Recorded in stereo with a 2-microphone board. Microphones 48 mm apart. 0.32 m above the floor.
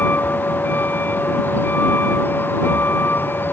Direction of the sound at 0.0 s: 40° left (ahead or behind).